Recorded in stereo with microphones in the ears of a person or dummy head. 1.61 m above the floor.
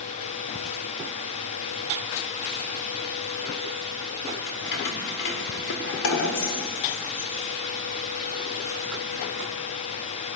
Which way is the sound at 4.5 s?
60° left (ahead or behind).